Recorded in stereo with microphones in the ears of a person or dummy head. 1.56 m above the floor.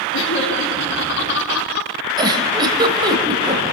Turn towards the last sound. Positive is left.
turn(degrees=-25)  # may be behind; listen again after turning